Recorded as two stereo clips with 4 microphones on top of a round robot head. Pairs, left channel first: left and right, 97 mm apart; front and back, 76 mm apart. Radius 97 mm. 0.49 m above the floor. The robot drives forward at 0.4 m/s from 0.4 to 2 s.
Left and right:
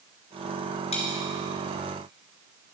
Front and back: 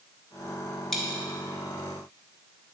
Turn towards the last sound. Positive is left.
turn(degrees=100)